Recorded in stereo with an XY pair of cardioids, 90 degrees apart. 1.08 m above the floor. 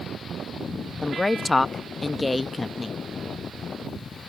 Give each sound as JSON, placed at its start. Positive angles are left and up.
{"t": 1.0, "sound": "a woman speaking", "azimuth_deg": 25}